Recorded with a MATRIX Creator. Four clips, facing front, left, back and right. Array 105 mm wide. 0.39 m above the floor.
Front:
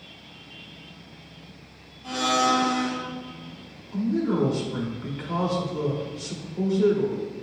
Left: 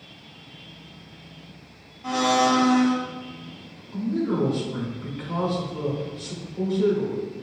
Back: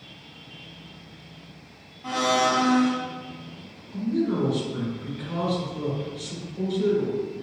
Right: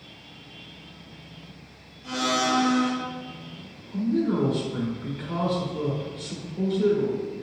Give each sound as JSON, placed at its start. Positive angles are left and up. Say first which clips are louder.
{"t": 2.0, "sound": "a blender", "louder": "left 5 dB, back 1 dB", "azimuth_deg": 125, "distance_m": 0.6}
{"t": 3.9, "sound": "a man speaking", "louder": "right 1 dB, front 1 dB", "azimuth_deg": 15, "distance_m": 0.8}